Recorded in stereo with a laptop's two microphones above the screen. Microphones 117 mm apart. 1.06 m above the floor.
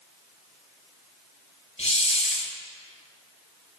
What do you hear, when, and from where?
1.8 s a hiss: 75° left (ahead or behind), 2.5 m